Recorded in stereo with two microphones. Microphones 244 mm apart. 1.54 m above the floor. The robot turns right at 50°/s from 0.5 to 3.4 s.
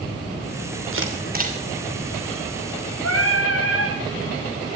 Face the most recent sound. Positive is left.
turn(degrees=55)  # may be behind; listen again after turning